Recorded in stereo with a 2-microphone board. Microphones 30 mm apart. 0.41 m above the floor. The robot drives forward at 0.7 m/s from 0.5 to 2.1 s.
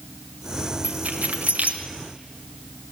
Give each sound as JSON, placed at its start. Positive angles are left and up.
{"t": 0.8, "sound": "keys jangling", "side_deg": -55, "distance_m": 1.5}